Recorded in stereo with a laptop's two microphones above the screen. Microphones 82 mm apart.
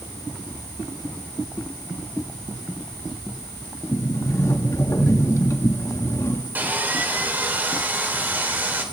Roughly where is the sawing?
Right.